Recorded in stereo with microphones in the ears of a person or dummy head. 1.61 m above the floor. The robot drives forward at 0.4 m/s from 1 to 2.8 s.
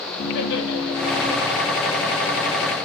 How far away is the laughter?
About 1.3 m.